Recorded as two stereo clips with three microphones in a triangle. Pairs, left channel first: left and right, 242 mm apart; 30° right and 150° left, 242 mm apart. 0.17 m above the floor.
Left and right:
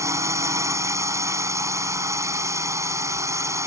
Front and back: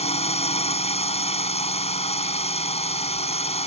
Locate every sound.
0.0 s a drone: 30° right